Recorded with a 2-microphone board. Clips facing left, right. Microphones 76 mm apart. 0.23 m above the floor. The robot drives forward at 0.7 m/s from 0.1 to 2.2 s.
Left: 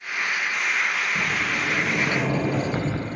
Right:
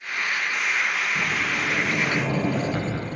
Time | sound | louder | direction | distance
1.1 | a sliding door | even | 40° left (ahead or behind) | 5.5 m